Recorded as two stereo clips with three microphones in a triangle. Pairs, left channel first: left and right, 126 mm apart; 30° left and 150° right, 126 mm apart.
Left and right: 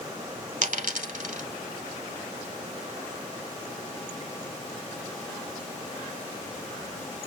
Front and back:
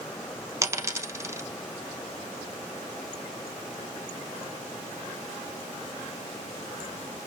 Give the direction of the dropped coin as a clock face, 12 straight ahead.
3 o'clock.